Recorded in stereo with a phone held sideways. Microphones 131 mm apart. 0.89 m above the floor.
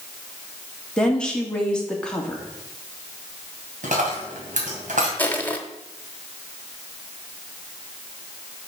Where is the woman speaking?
5° left (ahead or behind), 2 m.